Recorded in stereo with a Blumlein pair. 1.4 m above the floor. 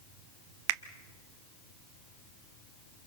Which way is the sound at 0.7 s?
45° right.